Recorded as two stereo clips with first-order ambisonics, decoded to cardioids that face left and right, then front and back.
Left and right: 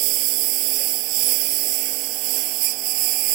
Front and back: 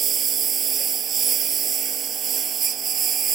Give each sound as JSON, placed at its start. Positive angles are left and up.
{"t": 0.0, "sound": "a lawn mower", "azimuth_deg": -115}